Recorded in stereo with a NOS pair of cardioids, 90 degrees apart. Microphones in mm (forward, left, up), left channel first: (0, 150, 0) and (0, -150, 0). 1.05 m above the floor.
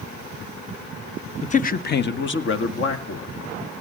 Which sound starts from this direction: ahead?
A man speaking, at 1.4 s.